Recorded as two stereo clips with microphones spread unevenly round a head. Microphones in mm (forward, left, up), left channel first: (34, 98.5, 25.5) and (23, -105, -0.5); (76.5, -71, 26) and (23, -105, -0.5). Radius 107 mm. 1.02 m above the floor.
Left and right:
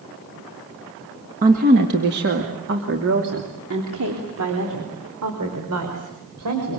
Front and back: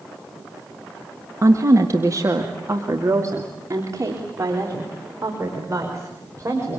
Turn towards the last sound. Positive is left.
turn(degrees=-105)